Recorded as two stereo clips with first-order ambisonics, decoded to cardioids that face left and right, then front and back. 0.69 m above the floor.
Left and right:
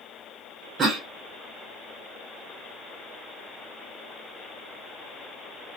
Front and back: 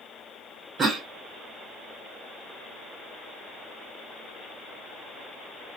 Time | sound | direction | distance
0.8 | a cough | 130° right | 0.5 m